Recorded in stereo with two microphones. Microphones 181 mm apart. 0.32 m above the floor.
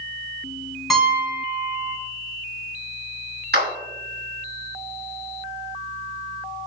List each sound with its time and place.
0.9 s a piano: centre (ahead or behind), 3.5 m
3.5 s a clap: 65° right (ahead or behind), 3 m